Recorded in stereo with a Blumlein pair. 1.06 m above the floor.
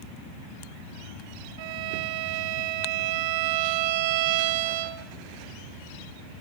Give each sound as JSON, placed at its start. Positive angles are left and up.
{"t": 1.6, "sound": "a violin", "azimuth_deg": -45, "distance_m": 1.7}